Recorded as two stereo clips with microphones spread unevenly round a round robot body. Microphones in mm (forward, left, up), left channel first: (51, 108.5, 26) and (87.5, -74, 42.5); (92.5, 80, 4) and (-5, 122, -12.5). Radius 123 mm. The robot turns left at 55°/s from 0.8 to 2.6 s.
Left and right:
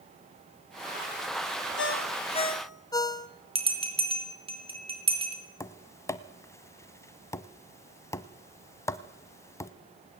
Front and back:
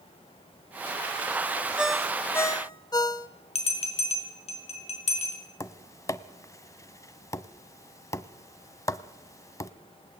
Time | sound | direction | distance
1.8 | a ringtone | 75° left | 1.1 m
3.5 | a bell | 20° right | 4 m
5.6 | tapping | 25° left | 1.0 m